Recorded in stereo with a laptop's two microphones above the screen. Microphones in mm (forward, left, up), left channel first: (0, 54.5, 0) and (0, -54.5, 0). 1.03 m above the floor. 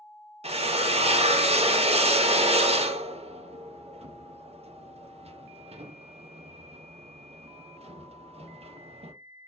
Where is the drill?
70° right (ahead or behind), 0.5 m.